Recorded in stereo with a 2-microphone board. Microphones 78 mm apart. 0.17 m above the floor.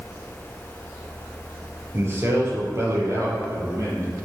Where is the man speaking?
35° right (ahead or behind), 3 m; by 4.1 s 50° right (ahead or behind), 6 m.